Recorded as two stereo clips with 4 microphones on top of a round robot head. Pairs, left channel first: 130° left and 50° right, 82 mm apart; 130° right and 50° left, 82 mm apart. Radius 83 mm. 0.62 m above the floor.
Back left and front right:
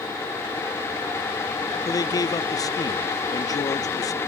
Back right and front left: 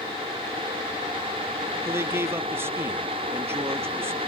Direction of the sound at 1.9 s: 100° left.